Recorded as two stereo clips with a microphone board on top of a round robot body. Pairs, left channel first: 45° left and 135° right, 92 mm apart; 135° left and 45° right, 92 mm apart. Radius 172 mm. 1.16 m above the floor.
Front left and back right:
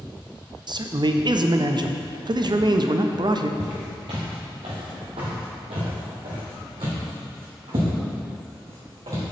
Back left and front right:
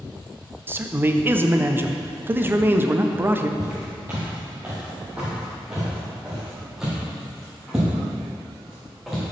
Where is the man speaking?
110° right, 0.7 m.